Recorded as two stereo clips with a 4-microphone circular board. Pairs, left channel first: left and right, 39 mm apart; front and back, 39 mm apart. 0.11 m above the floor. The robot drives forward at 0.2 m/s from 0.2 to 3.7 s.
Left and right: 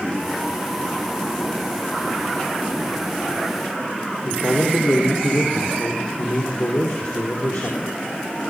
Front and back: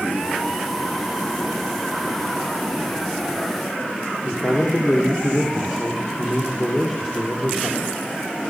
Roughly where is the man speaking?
Left.